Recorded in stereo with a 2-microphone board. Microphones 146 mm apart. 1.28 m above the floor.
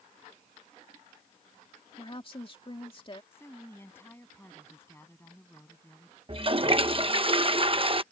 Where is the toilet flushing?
40° right (ahead or behind).